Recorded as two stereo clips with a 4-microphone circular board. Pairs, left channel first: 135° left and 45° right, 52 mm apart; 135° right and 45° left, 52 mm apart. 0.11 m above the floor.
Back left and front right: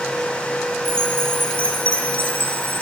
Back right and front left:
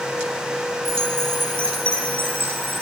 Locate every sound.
0.8 s a chime: straight ahead, 4.5 m